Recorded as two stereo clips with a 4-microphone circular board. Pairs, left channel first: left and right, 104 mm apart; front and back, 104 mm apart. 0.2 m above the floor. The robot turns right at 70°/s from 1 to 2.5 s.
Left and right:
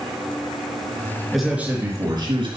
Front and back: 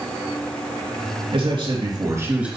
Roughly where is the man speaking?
Behind.